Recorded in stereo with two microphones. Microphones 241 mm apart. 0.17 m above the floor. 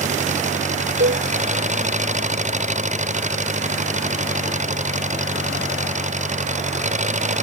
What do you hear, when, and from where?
0.0 s an engine running: 30° right (ahead or behind)
1.0 s a cowbell: 50° right (ahead or behind)